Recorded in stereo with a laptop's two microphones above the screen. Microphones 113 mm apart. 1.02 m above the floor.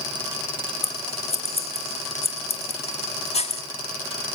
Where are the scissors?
60° left (ahead or behind), 2.0 m.